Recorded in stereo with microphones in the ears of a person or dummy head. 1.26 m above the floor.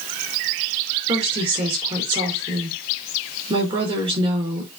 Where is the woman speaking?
30° right (ahead or behind), 4 m.